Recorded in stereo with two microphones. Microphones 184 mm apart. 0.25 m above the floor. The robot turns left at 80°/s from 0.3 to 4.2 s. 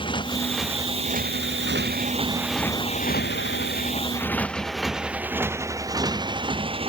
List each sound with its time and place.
0.0 s a motorcycle: 25° left (ahead or behind); by 6.9 s 30° right (ahead or behind)